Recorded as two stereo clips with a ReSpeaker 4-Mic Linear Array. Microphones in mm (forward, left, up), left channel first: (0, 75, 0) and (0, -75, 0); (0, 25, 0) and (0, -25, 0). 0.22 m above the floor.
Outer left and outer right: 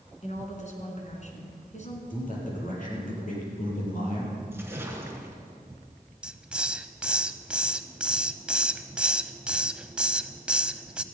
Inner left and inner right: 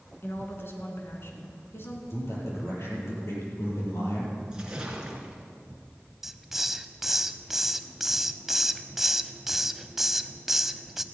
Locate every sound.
0.2 s a woman speaking: 50° left (ahead or behind), 3 m
2.1 s a man speaking: 65° left (ahead or behind), 6.5 m
4.5 s a splash: 15° right (ahead or behind), 2.5 m
6.2 s a hiss: 5° right (ahead or behind), 0.6 m